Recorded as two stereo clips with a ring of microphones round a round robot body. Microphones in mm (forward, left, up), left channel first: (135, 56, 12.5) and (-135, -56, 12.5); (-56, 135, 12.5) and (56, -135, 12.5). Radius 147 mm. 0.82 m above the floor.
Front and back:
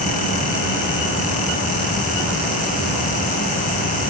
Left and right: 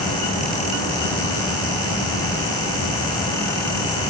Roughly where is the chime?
I don't hear a chime.